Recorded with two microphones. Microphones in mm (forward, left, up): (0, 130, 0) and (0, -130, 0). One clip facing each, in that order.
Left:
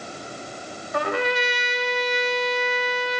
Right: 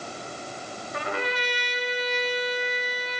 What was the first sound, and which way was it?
A trumpet, 75° left (ahead or behind).